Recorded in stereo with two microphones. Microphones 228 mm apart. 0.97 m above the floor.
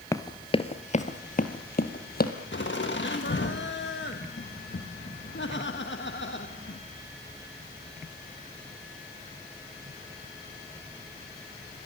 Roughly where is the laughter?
Left.